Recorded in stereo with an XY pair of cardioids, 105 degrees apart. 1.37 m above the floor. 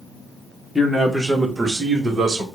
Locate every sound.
0.8 s a man speaking: 5° left, 0.9 m; by 2.5 s 45° right, 1.2 m